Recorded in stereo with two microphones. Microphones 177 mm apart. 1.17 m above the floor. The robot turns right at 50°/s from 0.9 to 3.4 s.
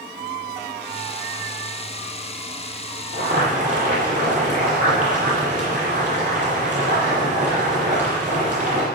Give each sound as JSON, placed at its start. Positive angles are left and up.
{"t": 3.1, "sound": "boiling", "side_deg": -60, "distance_m": 9.0}